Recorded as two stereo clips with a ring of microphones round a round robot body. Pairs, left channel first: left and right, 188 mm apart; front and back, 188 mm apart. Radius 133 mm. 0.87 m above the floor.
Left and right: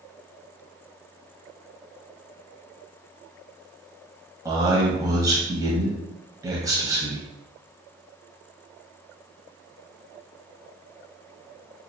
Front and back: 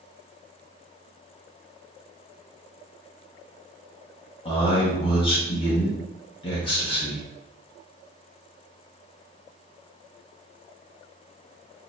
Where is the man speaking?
35° right, 1.1 m.